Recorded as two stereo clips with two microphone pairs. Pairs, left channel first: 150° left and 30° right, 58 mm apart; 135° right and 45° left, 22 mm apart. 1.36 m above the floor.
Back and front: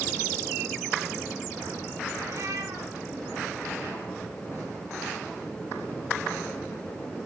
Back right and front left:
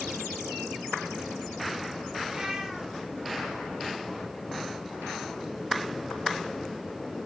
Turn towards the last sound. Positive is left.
turn(degrees=-15)